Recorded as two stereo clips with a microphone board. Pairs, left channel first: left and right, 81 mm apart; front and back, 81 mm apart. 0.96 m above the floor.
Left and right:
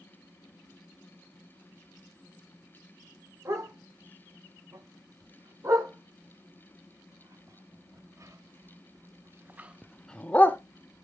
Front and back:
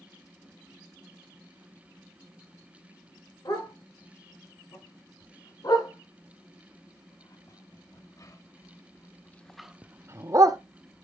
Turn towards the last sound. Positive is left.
turn(degrees=150)